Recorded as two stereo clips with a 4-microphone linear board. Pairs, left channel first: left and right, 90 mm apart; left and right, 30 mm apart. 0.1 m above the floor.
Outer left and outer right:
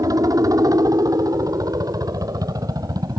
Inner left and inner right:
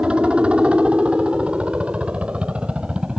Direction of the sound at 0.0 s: 45° right (ahead or behind).